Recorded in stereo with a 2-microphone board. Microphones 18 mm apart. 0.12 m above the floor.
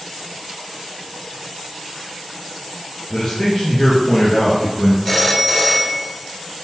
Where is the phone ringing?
25° left (ahead or behind), 1.6 m.